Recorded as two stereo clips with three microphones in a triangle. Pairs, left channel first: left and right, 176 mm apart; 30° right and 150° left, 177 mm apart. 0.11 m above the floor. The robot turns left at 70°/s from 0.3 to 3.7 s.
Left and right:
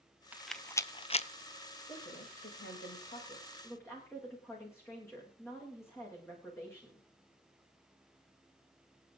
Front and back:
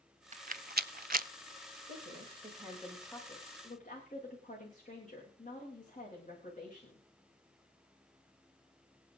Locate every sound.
0.3 s a rattle: 170° right, 0.5 m; by 1.3 s 125° left, 0.5 m
1.9 s a woman speaking: 140° left, 8.5 m; by 7.1 s 15° left, 8.5 m